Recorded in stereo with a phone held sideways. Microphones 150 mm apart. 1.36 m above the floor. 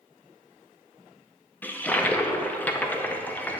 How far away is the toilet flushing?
About 0.6 m.